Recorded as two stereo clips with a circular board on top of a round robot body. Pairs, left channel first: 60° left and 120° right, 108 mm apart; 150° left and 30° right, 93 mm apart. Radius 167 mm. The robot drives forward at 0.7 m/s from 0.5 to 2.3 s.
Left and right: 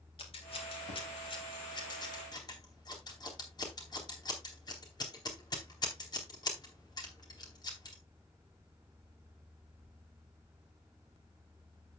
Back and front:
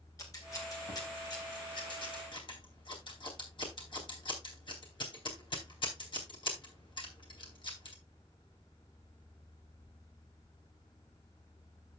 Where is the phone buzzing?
No phone buzzing in this recording.